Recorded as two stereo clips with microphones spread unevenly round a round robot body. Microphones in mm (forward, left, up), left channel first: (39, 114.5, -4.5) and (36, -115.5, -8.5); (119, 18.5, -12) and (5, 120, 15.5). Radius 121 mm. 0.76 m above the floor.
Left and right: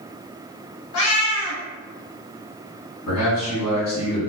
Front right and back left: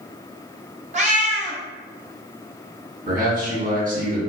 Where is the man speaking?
105° left, 1.6 m.